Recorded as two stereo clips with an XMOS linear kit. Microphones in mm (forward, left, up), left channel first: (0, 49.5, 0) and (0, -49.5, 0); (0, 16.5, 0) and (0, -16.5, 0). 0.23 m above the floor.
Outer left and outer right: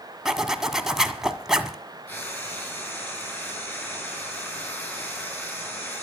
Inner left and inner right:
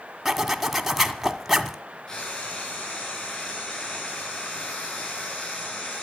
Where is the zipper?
5° right (ahead or behind), 1.6 m.